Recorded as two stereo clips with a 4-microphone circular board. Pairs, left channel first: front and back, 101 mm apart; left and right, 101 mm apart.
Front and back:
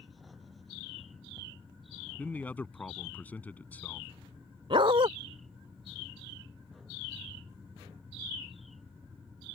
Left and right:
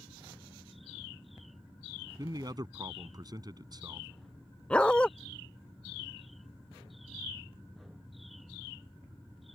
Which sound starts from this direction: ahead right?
A man speaking, at 2.2 s.